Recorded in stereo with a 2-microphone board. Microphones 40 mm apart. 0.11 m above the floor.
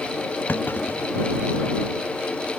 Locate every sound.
0.5 s a clunk: 55° left (ahead or behind)